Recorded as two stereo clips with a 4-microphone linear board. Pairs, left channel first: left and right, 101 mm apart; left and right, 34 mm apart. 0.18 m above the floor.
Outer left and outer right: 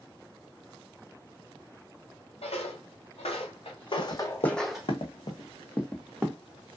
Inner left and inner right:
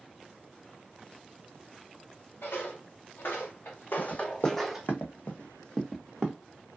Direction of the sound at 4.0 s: 85° left.